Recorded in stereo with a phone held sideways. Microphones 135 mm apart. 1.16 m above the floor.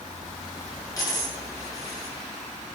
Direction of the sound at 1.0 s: 25° left (ahead or behind).